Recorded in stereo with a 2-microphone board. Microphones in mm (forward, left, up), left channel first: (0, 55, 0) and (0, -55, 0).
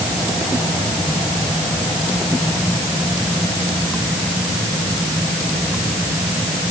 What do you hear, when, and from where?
Only background noise.